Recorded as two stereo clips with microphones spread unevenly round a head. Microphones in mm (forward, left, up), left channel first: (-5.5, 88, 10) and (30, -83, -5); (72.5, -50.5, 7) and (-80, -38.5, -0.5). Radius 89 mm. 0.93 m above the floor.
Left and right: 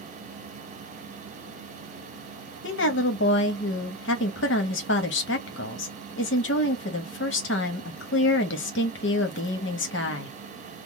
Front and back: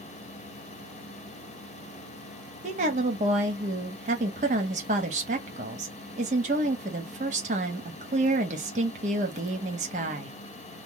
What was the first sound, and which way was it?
A woman speaking, 125° left.